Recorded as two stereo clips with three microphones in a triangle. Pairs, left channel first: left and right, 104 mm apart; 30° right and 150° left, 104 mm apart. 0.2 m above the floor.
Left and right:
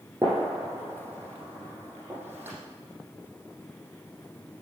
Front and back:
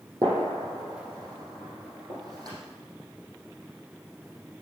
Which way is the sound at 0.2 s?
155° right.